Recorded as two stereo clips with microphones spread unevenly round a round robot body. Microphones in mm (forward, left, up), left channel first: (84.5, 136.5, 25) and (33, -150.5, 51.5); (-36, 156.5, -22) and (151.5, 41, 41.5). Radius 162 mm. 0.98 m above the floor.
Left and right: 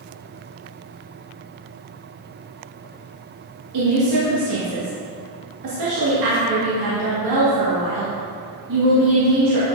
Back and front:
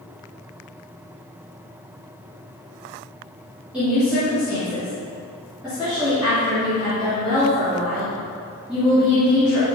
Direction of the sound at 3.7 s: 125° right.